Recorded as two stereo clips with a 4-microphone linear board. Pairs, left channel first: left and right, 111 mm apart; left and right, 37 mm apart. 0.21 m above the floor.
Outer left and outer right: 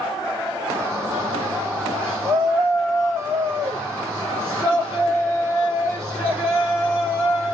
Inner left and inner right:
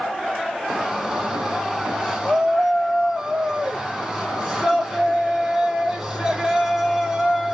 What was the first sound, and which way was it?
A shout, 20° right (ahead or behind).